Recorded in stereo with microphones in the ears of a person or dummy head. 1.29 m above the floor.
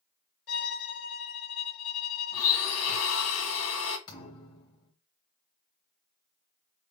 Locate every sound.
0.5 s a violin: 70° left (ahead or behind), 1.3 m
2.3 s a blender: 80° left, 2 m
4.1 s a thud: 25° left (ahead or behind), 1.4 m